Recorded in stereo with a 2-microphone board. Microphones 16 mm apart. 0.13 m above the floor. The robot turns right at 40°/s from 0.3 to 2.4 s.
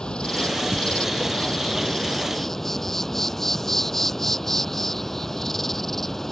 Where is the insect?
70° left; by 6.3 s 155° left.